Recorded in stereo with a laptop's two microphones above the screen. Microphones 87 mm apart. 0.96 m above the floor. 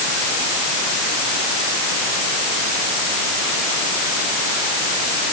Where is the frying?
No frying in this recording.